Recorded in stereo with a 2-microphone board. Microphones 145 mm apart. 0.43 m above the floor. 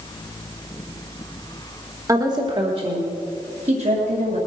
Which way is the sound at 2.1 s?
25° right (ahead or behind).